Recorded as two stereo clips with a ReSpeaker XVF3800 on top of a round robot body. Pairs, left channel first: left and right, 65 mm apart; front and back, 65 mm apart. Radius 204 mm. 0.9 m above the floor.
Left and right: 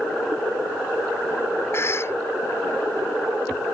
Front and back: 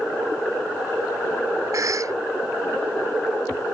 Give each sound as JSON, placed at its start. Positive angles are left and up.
{"t": 1.7, "sound": "a cough", "azimuth_deg": 145}